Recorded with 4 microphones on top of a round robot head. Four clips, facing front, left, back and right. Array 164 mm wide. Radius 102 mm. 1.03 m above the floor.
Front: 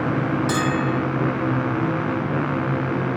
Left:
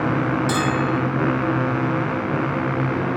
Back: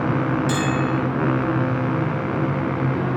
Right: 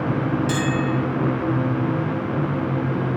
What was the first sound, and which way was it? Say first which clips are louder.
A bell: left 1 dB, even; 40° left.